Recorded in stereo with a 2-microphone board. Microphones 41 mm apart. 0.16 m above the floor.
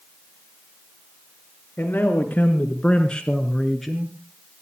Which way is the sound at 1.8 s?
55° left (ahead or behind).